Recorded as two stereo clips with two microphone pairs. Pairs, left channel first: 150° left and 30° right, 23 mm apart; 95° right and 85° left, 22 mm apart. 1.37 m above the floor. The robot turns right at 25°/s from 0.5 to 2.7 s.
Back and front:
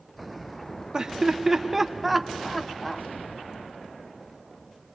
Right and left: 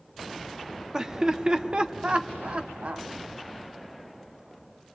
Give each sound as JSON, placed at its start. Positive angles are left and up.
{"t": 0.9, "sound": "laughter", "azimuth_deg": 25, "distance_m": 1.1}